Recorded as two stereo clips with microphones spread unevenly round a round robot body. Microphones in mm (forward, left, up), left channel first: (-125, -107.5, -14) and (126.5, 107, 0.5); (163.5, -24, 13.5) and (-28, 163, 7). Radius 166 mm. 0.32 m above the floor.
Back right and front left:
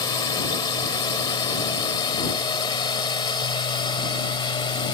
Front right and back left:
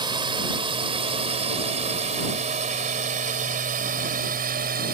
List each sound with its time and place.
0.0 s a drone: 170° left; by 5.0 s 155° left